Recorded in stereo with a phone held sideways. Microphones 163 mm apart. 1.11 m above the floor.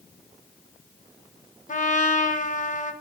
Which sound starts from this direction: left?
A trumpet, at 1.7 s.